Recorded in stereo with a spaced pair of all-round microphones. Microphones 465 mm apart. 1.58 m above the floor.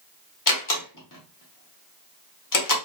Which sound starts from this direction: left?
A door slam, at 0.5 s.